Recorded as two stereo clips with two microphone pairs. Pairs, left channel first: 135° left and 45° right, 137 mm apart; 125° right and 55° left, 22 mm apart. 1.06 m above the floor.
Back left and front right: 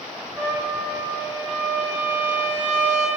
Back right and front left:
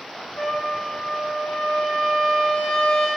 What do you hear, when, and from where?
0.4 s a trumpet: 120° right, 5.5 m